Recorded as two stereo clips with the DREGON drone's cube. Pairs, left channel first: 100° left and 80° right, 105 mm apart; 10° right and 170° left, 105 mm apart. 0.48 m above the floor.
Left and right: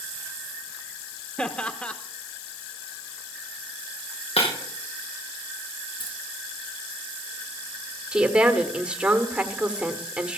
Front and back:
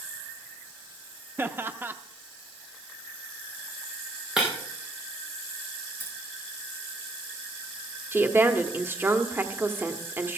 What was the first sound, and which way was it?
Laughter, 155° left.